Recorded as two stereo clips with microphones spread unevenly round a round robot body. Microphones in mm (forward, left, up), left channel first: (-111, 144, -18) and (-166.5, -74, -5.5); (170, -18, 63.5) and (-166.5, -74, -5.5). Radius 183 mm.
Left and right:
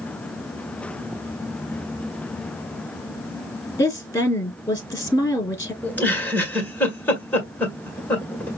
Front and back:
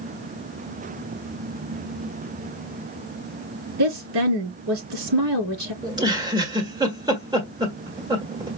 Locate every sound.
3.8 s a woman speaking: 150° left, 4 m
5.8 s a giggle: 145° left, 1.4 m